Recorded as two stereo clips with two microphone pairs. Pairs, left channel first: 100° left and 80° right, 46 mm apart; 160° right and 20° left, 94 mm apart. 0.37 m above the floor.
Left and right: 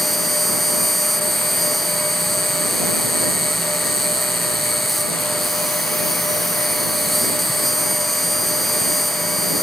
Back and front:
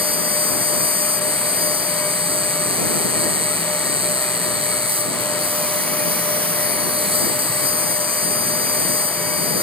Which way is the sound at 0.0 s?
15° left.